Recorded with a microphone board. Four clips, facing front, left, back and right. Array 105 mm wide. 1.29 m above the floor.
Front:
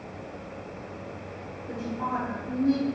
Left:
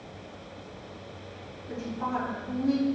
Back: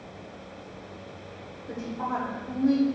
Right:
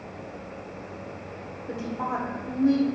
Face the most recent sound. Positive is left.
turn(degrees=-110)